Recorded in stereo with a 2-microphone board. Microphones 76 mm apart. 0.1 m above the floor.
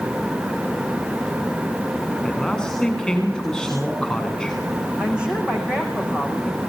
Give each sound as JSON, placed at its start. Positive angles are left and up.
{"t": 2.2, "sound": "a man speaking", "side_deg": 5, "distance_m": 9.0}
{"t": 5.0, "sound": "a woman speaking", "side_deg": -15, "distance_m": 6.5}